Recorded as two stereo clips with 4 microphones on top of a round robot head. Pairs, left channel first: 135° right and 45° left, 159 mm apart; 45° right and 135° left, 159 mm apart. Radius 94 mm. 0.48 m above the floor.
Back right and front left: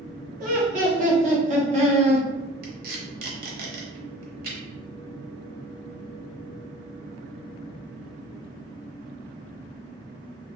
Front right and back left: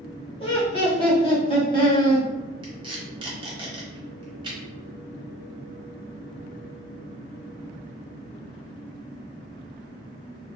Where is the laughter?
10° left, 1.7 m.